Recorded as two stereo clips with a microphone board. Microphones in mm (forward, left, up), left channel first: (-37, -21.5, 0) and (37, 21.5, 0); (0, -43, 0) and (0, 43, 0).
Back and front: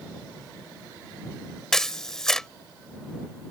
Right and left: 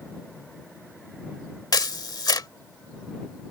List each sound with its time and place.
1.7 s a camera shutter: 65° right